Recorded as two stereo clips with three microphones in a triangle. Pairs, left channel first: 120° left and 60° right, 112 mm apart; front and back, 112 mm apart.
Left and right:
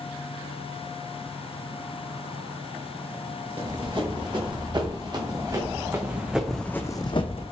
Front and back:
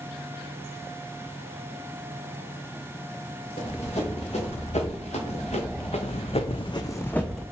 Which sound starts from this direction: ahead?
Running footsteps, at 3.6 s.